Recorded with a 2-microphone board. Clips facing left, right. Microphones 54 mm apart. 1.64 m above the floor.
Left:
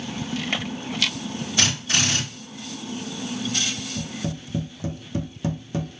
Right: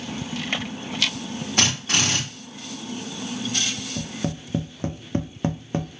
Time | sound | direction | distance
1.6 | a drill | 55° right (ahead or behind) | 1.5 m
4.0 | tapping | 40° right (ahead or behind) | 0.6 m